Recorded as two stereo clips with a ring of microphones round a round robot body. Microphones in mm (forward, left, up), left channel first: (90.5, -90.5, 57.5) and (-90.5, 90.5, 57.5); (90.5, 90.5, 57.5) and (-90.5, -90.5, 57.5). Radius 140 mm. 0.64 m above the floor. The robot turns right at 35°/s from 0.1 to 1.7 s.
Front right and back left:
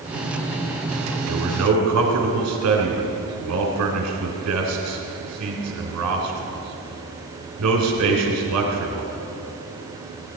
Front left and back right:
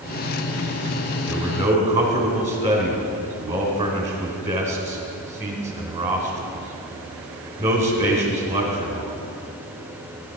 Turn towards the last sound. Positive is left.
turn(degrees=160)